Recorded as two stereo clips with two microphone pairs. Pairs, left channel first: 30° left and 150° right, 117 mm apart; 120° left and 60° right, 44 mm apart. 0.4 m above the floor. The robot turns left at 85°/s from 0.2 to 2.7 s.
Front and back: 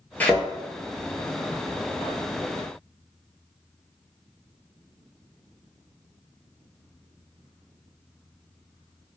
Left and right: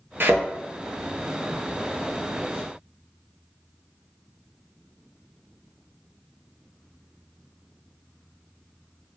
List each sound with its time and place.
0.2 s a thud: 50° right, 0.5 m; by 0.5 s 70° right, 0.5 m